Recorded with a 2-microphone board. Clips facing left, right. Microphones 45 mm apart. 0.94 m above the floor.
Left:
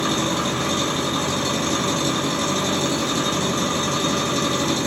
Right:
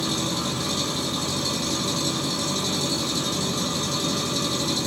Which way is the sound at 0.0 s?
45° left (ahead or behind).